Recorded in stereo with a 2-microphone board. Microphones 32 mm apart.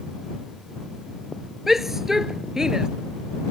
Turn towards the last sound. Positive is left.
turn(degrees=-20)  # may be behind; listen again after turning